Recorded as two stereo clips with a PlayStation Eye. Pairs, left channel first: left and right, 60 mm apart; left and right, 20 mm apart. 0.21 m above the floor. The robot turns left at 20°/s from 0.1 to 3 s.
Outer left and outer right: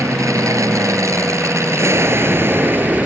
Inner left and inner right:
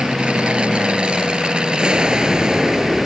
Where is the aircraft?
85° right; by 3.1 s 140° right.